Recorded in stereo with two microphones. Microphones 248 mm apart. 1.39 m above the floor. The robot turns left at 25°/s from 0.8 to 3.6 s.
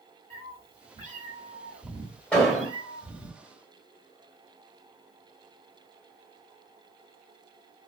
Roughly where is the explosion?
Centre.